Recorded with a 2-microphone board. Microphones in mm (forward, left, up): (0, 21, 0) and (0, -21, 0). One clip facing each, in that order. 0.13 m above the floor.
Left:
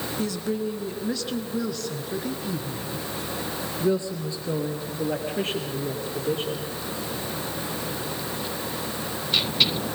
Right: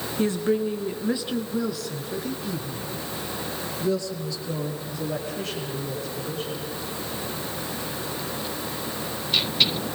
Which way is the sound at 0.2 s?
35° right (ahead or behind).